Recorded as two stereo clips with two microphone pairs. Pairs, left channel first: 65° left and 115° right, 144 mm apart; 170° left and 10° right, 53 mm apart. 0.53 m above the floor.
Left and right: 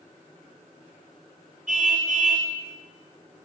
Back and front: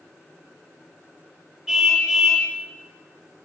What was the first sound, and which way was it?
A car horn, 90° right.